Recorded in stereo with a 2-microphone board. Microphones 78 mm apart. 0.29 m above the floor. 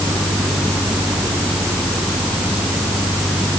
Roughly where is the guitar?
I don't hear a guitar.